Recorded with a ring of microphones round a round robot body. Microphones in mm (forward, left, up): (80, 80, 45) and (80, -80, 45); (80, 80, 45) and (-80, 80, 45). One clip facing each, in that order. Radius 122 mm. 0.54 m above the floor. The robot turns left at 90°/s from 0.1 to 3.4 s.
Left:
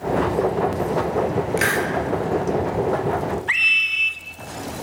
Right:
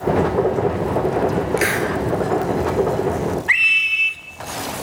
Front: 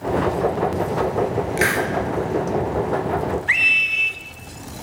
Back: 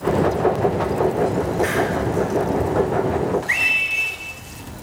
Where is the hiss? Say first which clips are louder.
Right 2 dB, back 3 dB; straight ahead, 3.5 m; by 1.9 s 30° right, 3.5 m.